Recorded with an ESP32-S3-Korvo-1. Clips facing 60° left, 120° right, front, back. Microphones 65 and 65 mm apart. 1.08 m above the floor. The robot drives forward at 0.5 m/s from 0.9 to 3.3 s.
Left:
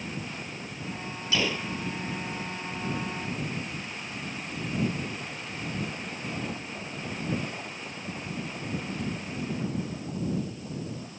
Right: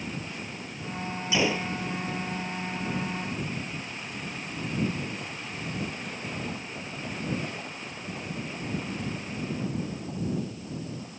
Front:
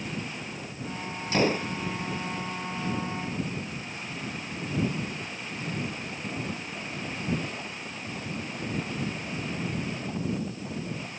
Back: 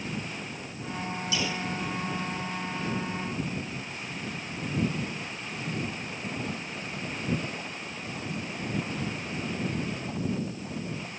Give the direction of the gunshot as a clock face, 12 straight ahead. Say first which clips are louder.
Right 2 dB, front 9 dB; 2 o'clock.